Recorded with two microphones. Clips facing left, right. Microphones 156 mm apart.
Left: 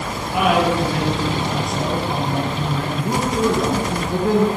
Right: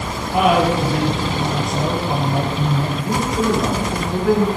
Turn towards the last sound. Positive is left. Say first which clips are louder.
# even
turn(degrees=30)  # may be behind; listen again after turning